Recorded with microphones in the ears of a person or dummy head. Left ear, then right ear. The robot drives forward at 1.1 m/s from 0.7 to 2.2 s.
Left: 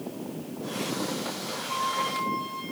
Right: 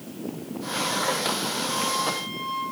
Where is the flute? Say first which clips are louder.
Even; 25° left (ahead or behind), 6 m.